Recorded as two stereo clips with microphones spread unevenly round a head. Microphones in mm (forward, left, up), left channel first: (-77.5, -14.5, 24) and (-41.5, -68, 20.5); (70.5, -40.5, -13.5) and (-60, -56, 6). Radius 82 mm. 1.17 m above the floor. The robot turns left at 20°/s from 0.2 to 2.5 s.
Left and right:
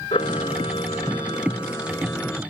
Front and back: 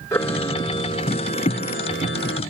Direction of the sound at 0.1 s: 85° left.